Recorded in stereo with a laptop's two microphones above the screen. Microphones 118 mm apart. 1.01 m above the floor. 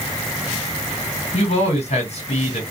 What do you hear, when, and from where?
1.3 s a man speaking: 60° left (ahead or behind), 1.5 m